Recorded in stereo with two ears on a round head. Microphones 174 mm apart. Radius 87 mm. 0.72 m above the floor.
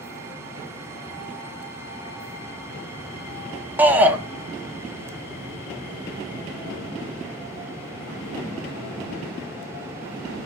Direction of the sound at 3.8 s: 10° right (ahead or behind).